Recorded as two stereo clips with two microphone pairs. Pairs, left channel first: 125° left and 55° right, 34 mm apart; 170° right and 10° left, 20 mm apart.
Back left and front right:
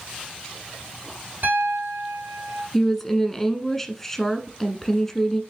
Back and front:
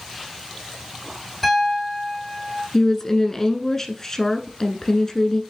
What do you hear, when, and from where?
1.4 s a piano: 85° right, 4 m
2.7 s a woman speaking: 165° right, 1.1 m